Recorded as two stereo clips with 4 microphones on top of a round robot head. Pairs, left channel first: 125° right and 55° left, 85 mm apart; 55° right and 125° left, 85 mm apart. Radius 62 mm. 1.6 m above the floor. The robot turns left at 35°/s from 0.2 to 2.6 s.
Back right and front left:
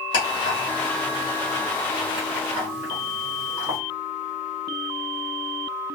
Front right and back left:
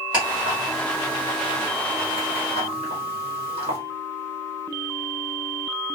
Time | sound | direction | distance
0.1 | ticking | 155° right | 1.4 m